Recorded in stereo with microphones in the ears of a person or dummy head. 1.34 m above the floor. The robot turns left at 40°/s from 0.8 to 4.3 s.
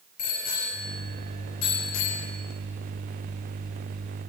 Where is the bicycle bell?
55° left (ahead or behind), 4.5 m; by 2.3 s 70° left (ahead or behind), 4.5 m.